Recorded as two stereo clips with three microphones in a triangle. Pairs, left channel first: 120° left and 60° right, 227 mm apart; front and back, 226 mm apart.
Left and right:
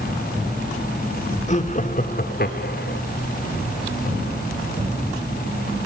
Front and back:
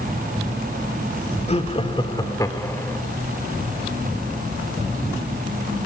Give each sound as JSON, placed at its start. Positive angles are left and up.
{"t": 1.5, "sound": "laughter", "azimuth_deg": 60, "distance_m": 2.0}